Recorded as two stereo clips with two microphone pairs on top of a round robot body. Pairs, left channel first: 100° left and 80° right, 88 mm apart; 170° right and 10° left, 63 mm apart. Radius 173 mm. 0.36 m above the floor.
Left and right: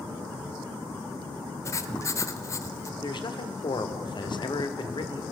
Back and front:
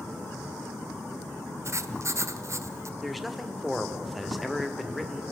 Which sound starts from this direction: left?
A man speaking, at 3.0 s.